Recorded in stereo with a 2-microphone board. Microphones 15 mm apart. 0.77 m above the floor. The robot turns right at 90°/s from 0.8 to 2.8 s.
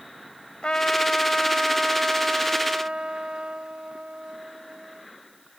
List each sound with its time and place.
0.6 s a trumpet: 105° left; by 5.0 s 75° right